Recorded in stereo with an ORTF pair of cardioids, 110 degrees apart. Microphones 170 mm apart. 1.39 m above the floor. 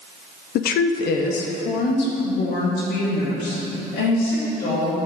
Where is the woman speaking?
65° left, 0.6 m; by 5.0 s 80° left, 3 m.